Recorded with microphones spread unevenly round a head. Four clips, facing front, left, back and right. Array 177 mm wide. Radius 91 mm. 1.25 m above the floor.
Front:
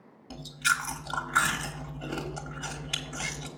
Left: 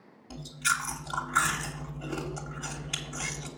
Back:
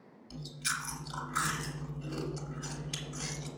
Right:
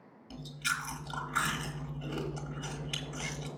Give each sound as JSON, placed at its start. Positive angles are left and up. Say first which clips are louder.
{"t": 0.3, "sound": "chewing", "louder": "left 5 dB, front 10 dB", "azimuth_deg": 20, "distance_m": 1.3}